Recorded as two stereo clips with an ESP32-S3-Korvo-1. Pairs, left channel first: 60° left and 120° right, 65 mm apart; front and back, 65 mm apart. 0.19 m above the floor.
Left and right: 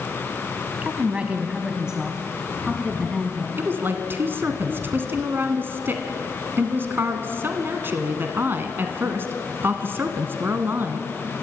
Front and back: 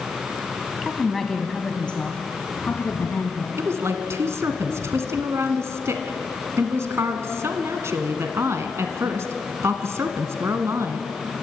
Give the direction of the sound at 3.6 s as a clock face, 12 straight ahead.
5 o'clock.